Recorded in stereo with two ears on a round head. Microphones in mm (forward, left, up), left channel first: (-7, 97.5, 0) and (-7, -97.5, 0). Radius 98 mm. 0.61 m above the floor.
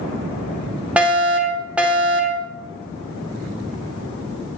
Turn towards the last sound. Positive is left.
turn(degrees=-5)  # may be behind; listen again after turning